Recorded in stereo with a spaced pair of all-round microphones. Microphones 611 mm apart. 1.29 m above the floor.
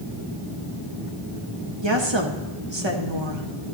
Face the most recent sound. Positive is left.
turn(degrees=-50)  # may be behind; listen again after turning